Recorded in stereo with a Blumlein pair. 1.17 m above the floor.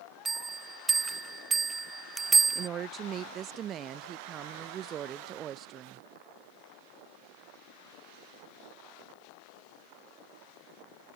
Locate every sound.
0.2 s a bell: 15° right
2.5 s a woman speaking: 30° right